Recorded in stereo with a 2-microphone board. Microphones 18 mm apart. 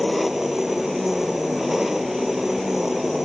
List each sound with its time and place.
0.0 s an engine running: 15° right (ahead or behind)